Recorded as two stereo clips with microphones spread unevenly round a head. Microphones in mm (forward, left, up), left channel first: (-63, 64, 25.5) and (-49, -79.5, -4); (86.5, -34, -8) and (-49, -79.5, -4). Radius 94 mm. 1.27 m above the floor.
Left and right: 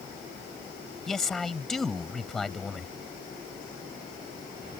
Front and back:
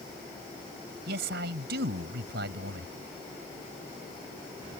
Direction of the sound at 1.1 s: Straight behind.